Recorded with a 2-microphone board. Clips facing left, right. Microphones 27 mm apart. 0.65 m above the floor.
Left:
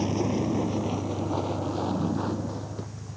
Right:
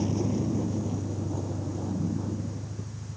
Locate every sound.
0.0 s a vehicle: 30° left (ahead or behind); by 3.2 s 80° left